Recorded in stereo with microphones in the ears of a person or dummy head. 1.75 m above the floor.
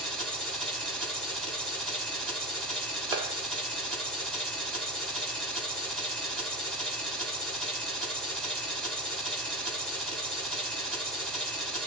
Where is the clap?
30° right (ahead or behind), 0.7 m.